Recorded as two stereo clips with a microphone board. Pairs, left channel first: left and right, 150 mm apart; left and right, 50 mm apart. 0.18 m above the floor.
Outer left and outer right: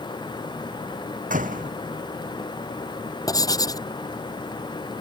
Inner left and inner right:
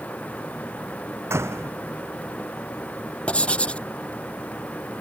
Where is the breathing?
No breathing in this recording.